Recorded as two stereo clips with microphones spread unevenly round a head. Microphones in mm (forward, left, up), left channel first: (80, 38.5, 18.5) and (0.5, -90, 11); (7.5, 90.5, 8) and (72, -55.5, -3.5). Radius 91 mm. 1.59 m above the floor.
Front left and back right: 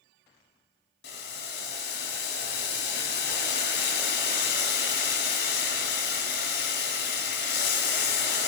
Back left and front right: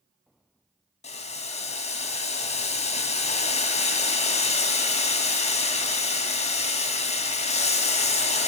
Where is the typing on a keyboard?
I don't hear typing on a keyboard.